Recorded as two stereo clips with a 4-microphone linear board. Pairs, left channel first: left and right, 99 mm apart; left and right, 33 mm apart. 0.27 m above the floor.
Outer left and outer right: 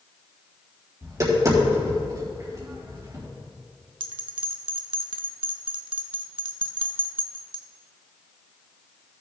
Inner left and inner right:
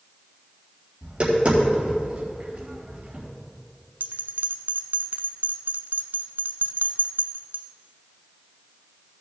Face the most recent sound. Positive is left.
turn(degrees=-65)  # may be behind; listen again after turning